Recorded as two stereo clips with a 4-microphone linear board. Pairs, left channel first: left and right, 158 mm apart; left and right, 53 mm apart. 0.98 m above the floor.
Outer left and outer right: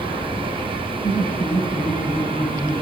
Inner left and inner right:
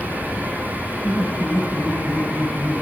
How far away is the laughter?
About 5.5 m.